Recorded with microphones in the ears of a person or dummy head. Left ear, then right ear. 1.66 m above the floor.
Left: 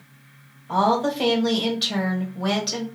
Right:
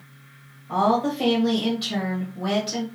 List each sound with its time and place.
0.7 s a woman speaking: 20° left (ahead or behind), 1.6 m